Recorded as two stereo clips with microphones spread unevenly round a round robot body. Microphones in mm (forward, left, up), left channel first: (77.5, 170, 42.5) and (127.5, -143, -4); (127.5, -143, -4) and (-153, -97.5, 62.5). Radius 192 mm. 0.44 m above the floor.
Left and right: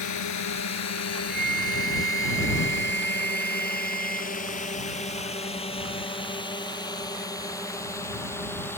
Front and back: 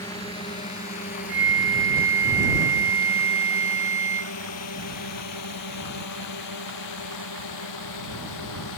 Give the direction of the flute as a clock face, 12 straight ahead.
5 o'clock.